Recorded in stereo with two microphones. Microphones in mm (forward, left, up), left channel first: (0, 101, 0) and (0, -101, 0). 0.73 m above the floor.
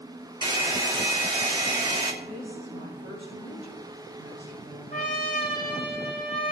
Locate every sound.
0.4 s a hair dryer: 25° right (ahead or behind), 1.6 m
2.2 s a woman speaking: 75° left (ahead or behind), 4.5 m
4.9 s a trumpet: 45° left (ahead or behind), 2.5 m